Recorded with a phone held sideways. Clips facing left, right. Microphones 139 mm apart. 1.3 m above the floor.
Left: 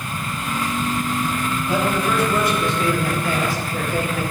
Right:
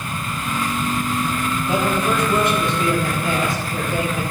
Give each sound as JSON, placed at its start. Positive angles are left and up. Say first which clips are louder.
{"t": 1.7, "sound": "a man speaking", "louder": "right 1 dB", "side_deg": -25, "distance_m": 3.5}